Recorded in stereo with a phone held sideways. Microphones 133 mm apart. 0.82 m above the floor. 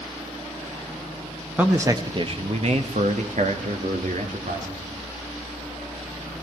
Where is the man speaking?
10° right (ahead or behind), 0.9 m; by 4.8 s 65° right (ahead or behind), 2.5 m.